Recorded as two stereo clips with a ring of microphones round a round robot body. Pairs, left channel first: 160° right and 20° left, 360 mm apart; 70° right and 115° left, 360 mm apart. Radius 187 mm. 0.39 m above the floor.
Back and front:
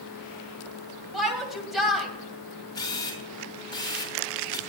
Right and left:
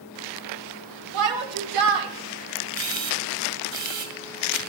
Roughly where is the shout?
Left.